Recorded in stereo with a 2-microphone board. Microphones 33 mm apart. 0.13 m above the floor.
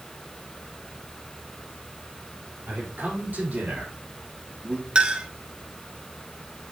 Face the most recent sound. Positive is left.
turn(degrees=-30)  # may be behind; listen again after turning